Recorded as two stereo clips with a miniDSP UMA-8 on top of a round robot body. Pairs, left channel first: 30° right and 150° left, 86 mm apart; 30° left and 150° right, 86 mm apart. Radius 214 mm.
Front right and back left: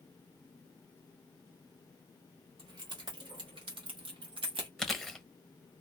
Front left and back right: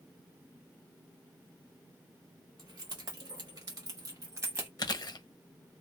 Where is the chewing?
55° left, 1.0 m.